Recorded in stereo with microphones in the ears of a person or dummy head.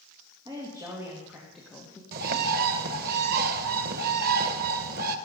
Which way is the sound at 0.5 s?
25° right (ahead or behind).